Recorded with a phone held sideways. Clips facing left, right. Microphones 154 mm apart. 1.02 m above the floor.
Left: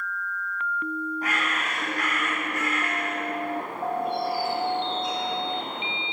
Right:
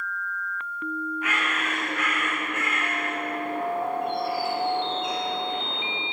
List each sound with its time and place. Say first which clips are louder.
1.2 s a bird: even; 35° left (ahead or behind), 7 m